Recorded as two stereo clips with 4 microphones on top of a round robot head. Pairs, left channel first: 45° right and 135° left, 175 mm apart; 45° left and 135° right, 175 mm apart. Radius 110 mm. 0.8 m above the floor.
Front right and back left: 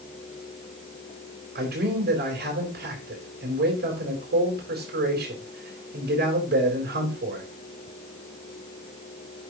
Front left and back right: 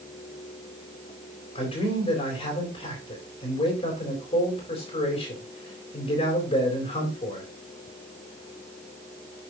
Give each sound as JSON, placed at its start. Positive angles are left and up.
{"t": 1.6, "sound": "a man speaking", "azimuth_deg": 105, "distance_m": 4.0}